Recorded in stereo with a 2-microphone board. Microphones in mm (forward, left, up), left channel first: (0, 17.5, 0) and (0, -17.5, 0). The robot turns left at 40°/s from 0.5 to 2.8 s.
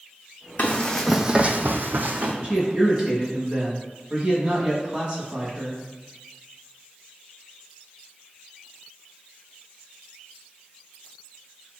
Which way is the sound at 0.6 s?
40° left (ahead or behind).